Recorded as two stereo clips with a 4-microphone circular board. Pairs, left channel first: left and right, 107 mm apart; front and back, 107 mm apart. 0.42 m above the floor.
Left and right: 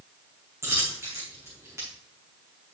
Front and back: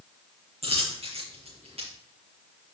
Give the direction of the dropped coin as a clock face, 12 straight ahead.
5 o'clock.